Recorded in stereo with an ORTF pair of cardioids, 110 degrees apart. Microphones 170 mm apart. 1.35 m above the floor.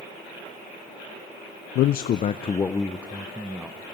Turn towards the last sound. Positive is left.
turn(degrees=-10)